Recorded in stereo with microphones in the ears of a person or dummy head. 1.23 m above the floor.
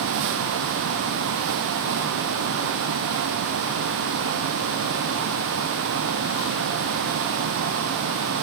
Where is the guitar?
No guitar in this recording.